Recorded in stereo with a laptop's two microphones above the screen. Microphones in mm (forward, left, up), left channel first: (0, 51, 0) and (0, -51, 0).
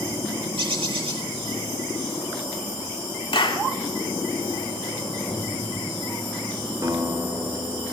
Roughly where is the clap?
Left.